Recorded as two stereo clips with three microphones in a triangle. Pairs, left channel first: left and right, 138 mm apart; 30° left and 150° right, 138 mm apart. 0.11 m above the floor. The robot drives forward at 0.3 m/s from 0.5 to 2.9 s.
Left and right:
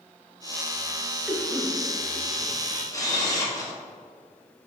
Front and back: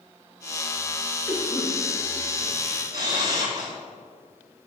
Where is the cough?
15° right, 1.6 m; by 2.7 s 35° right, 1.4 m.